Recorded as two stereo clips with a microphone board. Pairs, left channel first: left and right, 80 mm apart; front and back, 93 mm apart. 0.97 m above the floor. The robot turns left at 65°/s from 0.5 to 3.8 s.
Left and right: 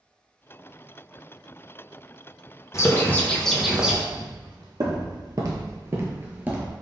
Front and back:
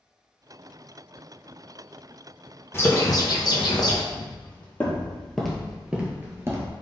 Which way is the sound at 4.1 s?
65° right.